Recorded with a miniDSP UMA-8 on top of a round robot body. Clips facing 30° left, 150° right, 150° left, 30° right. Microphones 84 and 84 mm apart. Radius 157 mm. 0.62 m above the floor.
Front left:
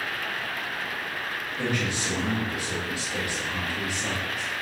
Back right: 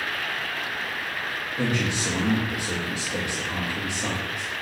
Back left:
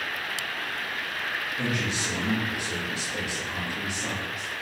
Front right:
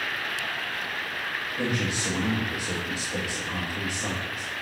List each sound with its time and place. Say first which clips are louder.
1.6 s a man speaking: back right 3 dB, front right 2 dB; 100° right, 1.4 m